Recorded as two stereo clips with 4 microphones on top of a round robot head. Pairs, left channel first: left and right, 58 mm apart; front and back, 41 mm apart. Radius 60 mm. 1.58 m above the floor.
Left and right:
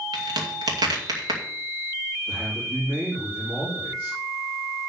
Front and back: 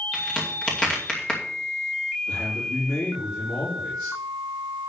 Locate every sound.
0.1 s a crack: 80° right, 2.5 m
2.3 s a man speaking: 25° right, 3.5 m